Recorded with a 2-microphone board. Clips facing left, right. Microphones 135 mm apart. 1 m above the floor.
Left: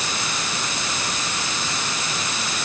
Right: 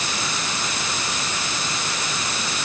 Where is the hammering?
I don't hear hammering.